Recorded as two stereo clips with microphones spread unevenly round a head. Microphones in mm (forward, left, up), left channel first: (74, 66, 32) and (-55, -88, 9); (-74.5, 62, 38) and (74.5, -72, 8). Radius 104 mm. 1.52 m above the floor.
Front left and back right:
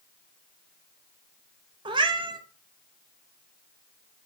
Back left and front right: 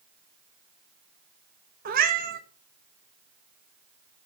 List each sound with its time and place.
1.9 s a cat meowing: 70° right, 0.8 m